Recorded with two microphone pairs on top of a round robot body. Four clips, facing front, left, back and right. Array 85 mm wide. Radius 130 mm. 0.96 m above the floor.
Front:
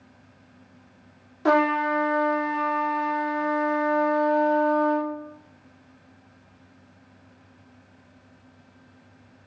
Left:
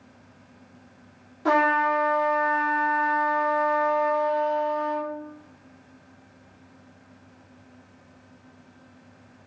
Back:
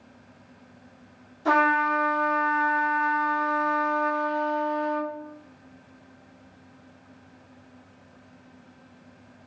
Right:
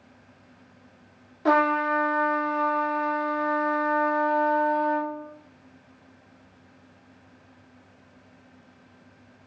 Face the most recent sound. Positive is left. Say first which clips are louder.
# left 1 dB, even
turn(degrees=-25)